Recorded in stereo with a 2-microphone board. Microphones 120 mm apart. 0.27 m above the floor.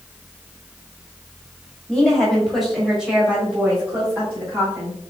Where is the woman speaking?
5° left (ahead or behind), 1.7 m; by 5.0 s 25° right (ahead or behind), 1.9 m.